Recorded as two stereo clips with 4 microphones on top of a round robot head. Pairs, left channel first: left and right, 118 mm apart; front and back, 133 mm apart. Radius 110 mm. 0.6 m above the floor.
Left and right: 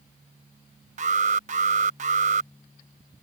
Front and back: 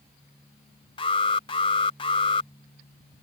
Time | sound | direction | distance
1.0 | an alarm | 60° right | ?